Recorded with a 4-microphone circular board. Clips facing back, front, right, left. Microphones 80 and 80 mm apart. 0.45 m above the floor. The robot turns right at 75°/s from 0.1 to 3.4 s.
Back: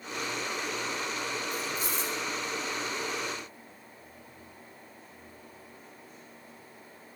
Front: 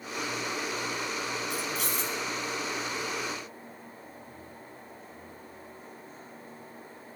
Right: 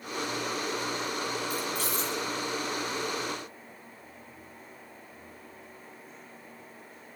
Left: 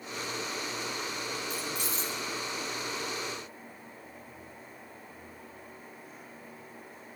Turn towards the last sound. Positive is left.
turn(degrees=135)